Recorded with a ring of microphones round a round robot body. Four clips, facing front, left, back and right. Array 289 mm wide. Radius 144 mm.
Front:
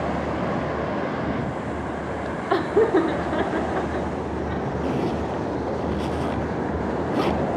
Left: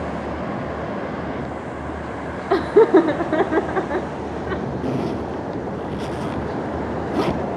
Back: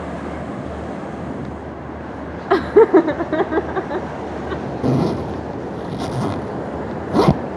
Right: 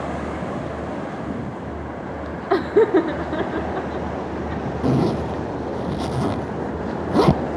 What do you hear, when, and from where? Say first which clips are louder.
2.5 s laughter: left 3 dB, back 8 dB; 175° right, 0.9 m; by 4.7 s 130° left, 2.0 m
4.8 s a zipper: right 7 dB, back 8 dB; 150° right, 0.6 m